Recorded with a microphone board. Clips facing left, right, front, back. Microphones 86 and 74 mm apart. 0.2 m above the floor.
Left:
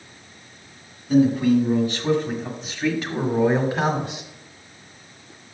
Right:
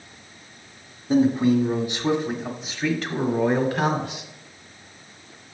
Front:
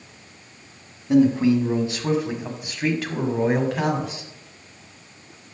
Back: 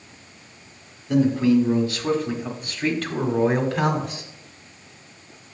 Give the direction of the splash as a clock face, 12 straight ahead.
I don't hear a splash.